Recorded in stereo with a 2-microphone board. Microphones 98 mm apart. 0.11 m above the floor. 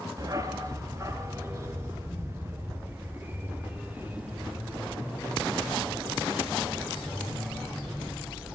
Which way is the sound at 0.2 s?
35° right (ahead or behind).